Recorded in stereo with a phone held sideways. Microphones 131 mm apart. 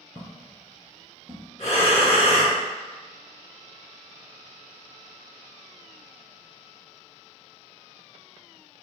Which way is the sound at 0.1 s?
15° left (ahead or behind).